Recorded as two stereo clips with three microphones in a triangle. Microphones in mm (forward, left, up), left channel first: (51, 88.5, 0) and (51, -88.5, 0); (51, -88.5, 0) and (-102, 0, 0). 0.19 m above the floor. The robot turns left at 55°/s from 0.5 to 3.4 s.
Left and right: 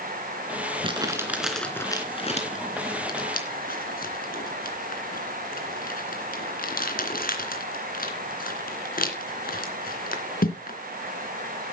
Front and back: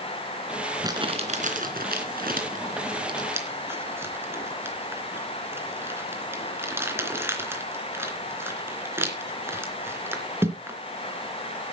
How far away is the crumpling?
About 3 m.